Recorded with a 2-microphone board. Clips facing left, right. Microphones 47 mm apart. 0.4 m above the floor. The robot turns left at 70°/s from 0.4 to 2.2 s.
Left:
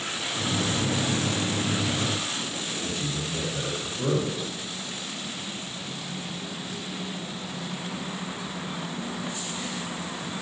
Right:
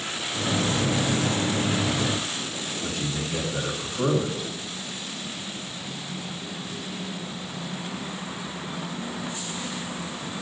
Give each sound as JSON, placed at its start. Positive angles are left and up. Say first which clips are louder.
{"t": 2.8, "sound": "a man speaking", "louder": "right 3 dB", "side_deg": -70, "distance_m": 5.0}